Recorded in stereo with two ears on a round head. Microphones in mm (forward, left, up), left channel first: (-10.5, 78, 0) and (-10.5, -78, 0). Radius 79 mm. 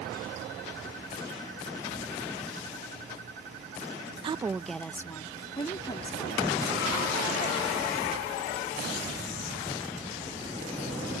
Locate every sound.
4.2 s a woman speaking: 30° right (ahead or behind); by 8.3 s 35° left (ahead or behind)